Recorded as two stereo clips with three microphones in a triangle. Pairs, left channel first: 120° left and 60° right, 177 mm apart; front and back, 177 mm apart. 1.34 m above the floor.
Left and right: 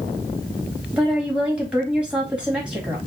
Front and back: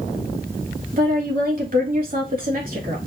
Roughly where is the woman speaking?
Behind right.